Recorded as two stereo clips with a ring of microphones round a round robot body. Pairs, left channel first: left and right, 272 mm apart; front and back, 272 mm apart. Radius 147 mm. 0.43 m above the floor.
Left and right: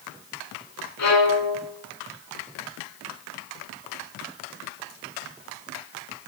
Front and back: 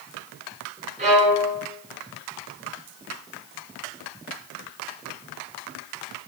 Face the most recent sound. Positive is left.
turn(degrees=110)